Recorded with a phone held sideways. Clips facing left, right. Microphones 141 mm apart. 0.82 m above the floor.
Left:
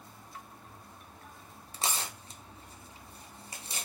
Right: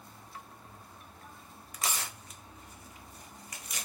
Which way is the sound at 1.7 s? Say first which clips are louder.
Left 2 dB; 30° left (ahead or behind).